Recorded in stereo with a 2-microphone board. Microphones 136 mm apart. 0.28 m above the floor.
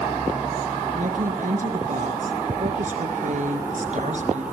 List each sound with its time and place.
0.9 s a woman speaking: 75° right (ahead or behind), 4 m; by 4.4 s 60° right (ahead or behind), 4 m